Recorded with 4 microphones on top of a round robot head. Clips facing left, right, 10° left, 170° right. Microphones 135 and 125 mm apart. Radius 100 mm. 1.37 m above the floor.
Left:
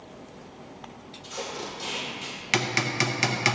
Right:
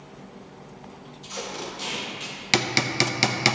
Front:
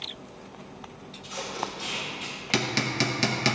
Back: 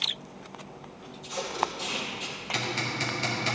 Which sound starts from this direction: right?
Tape being pulled, at 1.2 s.